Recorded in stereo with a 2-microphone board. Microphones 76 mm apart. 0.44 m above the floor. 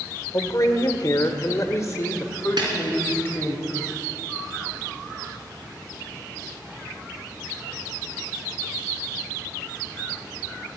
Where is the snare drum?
80° right, 3.5 m.